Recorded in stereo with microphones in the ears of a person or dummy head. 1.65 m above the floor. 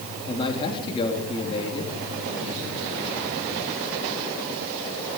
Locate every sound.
0.3 s a man speaking: 30° left (ahead or behind), 3.5 m